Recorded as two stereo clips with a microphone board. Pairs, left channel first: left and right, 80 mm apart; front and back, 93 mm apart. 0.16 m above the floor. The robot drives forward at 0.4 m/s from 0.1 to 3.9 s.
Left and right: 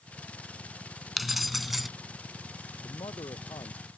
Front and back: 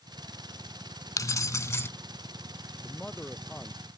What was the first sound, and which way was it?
Keys jangling, 5° right.